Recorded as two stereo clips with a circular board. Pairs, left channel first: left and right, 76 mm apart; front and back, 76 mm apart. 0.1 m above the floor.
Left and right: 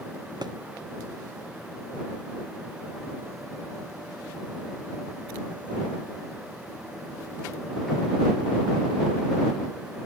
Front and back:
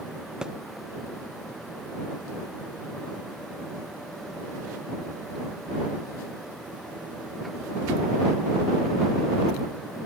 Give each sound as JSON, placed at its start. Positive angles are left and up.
{"t": 0.4, "sound": "a thud", "azimuth_deg": -100}